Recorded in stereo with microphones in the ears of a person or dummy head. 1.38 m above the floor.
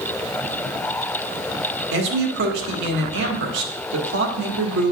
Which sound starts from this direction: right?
A man speaking, at 1.9 s.